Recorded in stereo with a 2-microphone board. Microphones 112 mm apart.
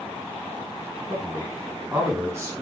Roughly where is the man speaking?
Centre.